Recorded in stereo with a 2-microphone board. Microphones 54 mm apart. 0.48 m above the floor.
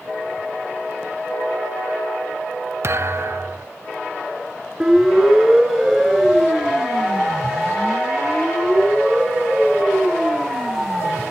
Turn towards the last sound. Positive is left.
turn(degrees=5)  # may be behind; listen again after turning